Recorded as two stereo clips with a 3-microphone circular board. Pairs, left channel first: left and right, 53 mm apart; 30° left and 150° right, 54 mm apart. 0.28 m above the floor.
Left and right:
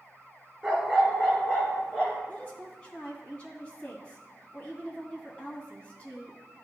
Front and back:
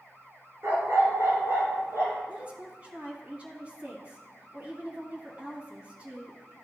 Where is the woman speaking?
150° left, 1.8 m.